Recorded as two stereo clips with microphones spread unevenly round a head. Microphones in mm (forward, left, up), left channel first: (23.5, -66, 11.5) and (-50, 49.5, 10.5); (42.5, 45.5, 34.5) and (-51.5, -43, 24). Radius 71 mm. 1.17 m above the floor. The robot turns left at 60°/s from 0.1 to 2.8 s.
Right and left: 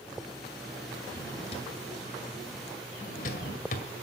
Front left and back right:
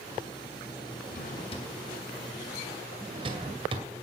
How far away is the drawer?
About 2 m.